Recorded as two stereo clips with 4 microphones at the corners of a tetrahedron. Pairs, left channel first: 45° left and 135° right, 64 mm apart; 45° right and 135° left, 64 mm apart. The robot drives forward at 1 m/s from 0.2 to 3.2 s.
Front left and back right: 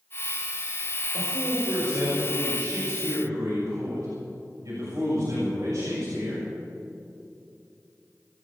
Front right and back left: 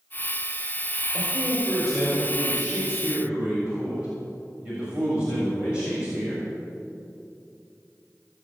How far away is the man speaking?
About 5 m.